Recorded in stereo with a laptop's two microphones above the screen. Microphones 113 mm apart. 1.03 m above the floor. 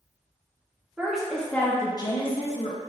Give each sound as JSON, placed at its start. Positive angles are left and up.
{"t": 1.0, "sound": "a woman speaking", "side_deg": -5, "distance_m": 1.2}